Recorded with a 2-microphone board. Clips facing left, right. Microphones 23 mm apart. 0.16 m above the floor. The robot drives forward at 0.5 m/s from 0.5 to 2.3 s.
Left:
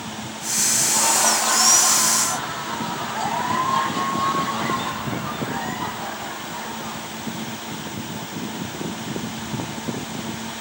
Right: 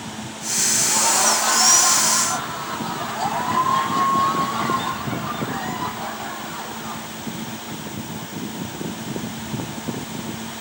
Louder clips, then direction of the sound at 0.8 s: Right 1 dB; 10° left (ahead or behind).